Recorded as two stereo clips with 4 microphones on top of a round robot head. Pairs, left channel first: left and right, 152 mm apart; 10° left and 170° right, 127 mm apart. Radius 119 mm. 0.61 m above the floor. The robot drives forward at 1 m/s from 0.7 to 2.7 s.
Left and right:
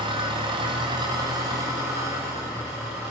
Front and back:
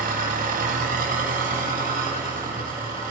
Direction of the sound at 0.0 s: 155° right.